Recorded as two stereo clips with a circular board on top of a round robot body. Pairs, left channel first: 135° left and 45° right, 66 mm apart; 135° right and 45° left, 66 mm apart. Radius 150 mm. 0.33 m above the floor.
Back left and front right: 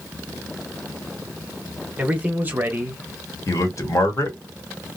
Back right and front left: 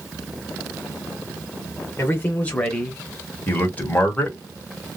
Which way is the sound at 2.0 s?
105° right.